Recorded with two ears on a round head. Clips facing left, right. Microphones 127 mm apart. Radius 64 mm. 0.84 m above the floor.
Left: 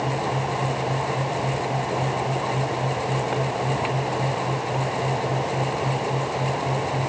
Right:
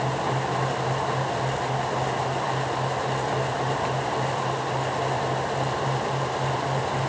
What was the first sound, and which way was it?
Only background noise.